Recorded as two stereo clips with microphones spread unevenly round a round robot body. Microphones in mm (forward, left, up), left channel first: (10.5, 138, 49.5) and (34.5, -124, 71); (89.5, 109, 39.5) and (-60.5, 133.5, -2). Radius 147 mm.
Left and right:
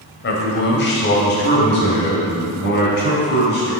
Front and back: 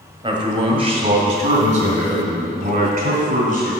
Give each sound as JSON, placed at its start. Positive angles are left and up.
{"t": 0.2, "sound": "a man speaking", "azimuth_deg": 130, "distance_m": 1.6}